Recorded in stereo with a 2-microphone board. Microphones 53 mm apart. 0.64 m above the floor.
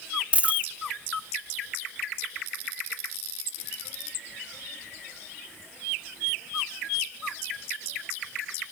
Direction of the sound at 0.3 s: 25° right (ahead or behind).